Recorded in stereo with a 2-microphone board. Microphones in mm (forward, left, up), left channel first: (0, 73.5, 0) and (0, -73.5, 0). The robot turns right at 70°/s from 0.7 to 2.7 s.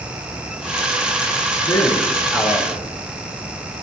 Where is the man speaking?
150° left, 7 m; by 2.8 s 140° right, 7 m.